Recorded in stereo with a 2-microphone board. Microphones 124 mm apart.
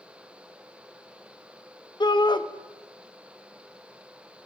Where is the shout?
40° left (ahead or behind), 0.6 m.